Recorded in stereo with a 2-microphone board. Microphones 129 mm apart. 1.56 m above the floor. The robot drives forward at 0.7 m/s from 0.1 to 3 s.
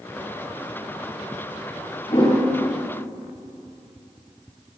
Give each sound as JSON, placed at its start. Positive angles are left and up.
{"t": 2.1, "sound": "a whoosh", "side_deg": 50, "distance_m": 4.5}